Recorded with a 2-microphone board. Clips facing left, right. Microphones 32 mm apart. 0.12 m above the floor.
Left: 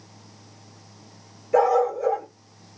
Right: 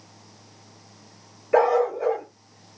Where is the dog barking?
40° right (ahead or behind), 0.7 m.